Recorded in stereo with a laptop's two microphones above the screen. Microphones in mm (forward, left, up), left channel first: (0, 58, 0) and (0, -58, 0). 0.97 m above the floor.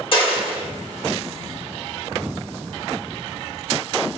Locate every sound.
0.1 s a dropped coin: 50° left (ahead or behind), 1.1 m